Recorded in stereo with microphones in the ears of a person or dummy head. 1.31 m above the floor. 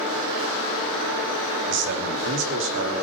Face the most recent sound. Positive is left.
turn(degrees=-70)  # may be behind; listen again after turning